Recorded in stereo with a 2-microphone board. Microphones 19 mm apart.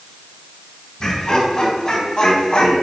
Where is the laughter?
40° left (ahead or behind), 3 m; by 2.7 s 50° left (ahead or behind), 2.5 m.